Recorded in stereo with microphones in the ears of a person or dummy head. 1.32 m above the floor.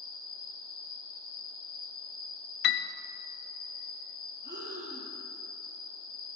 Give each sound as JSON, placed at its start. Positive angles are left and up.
{"t": 0.0, "sound": "an insect", "side_deg": 70, "distance_m": 2.0}
{"t": 2.6, "sound": "a piano", "side_deg": 60, "distance_m": 0.7}
{"t": 4.4, "sound": "breathing", "side_deg": -25, "distance_m": 4.5}